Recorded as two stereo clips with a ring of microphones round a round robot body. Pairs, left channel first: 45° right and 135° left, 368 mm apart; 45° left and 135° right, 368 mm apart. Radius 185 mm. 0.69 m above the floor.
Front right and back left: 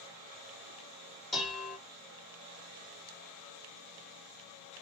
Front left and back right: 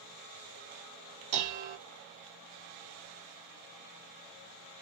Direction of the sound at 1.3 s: 135° right.